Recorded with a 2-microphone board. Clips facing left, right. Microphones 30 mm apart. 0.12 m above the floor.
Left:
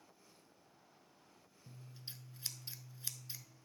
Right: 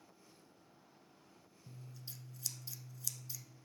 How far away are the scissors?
About 0.7 m.